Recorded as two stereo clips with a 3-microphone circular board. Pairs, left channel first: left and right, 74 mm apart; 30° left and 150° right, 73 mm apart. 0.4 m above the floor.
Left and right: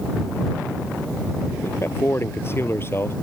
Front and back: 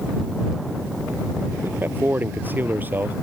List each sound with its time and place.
1.6 s a man speaking: 145° left